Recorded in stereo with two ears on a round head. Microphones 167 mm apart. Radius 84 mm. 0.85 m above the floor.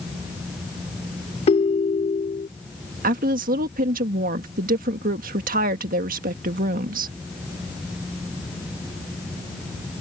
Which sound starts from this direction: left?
A ringtone, at 1.5 s.